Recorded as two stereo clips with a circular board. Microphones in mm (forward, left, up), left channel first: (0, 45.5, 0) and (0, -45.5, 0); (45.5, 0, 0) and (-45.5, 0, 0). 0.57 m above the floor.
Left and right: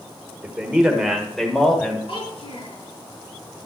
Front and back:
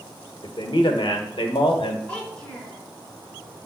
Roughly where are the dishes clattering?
No dishes clattering in this recording.